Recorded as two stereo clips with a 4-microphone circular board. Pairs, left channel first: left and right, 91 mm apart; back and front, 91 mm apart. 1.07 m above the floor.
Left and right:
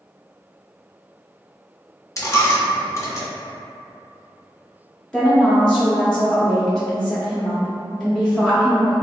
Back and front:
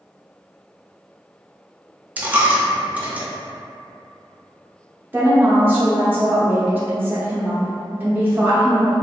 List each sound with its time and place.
2.2 s a dropped coin: 60° left, 0.5 m
5.1 s a woman speaking: 20° left, 0.6 m